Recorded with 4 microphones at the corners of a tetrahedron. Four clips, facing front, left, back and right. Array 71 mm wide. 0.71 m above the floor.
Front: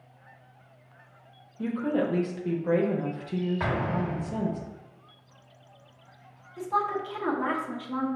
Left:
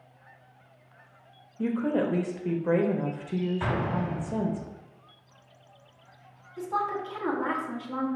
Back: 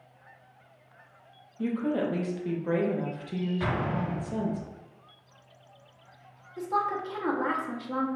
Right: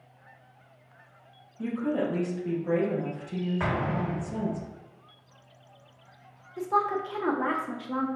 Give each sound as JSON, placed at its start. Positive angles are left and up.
{"t": 1.6, "sound": "a woman speaking", "azimuth_deg": 85, "distance_m": 0.6}
{"t": 3.6, "sound": "an explosion", "azimuth_deg": -60, "distance_m": 1.2}
{"t": 6.6, "sound": "a woman speaking", "azimuth_deg": -115, "distance_m": 0.9}